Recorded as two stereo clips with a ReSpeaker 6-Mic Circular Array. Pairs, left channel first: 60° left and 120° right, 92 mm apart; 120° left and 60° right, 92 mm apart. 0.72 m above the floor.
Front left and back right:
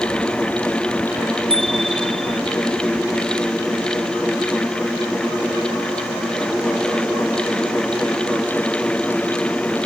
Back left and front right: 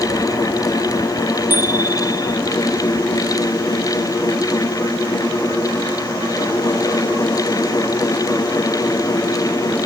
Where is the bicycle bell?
125° right.